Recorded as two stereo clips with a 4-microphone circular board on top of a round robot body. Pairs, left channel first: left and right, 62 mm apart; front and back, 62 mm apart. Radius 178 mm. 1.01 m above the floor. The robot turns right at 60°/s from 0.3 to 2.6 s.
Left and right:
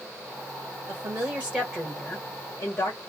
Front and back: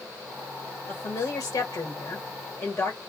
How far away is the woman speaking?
About 1.5 m.